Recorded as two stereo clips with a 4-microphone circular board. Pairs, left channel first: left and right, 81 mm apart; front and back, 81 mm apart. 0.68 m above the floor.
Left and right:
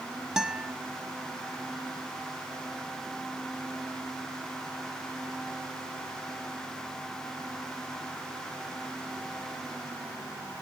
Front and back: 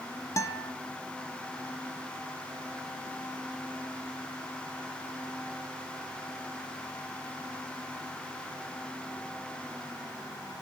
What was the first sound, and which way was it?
A guitar, 15° right.